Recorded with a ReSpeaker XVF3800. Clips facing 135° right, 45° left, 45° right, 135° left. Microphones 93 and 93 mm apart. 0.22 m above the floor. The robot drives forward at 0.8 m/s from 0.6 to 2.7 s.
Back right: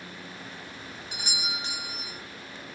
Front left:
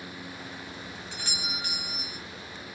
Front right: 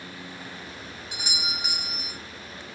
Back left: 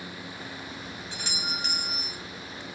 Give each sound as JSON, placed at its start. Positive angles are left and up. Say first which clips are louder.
{"t": 1.1, "sound": "a doorbell", "louder": "back right 3 dB, front right 1 dB", "azimuth_deg": -85, "distance_m": 1.8}